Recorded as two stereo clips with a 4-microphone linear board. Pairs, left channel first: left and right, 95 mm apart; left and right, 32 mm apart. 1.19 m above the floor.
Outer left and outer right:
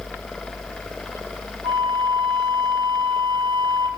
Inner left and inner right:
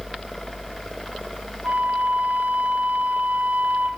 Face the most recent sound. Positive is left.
turn(degrees=-75)  # may be behind; listen again after turning